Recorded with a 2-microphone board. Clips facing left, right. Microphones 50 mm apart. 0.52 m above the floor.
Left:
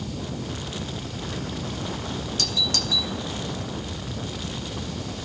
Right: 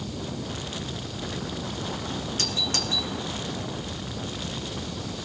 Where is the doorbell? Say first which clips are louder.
Left 3 dB; 35° right (ahead or behind), 1.4 m.